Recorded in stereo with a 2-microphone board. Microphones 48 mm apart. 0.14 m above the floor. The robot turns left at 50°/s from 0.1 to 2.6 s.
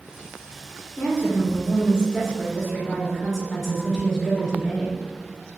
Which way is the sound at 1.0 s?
70° left.